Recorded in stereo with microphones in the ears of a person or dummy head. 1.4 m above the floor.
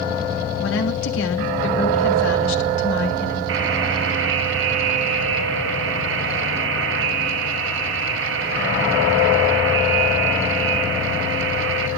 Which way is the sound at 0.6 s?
75° left (ahead or behind).